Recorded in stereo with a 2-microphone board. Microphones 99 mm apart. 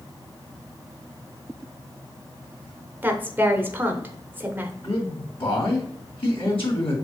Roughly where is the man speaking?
Left.